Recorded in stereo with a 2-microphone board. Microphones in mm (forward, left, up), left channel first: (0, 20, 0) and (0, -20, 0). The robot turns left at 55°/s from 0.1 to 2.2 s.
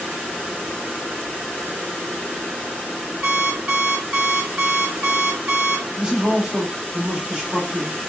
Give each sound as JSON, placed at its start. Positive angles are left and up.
{"t": 3.2, "sound": "an alarm clock", "side_deg": -20, "distance_m": 1.2}
{"t": 6.0, "sound": "a man speaking", "side_deg": -20, "distance_m": 1.0}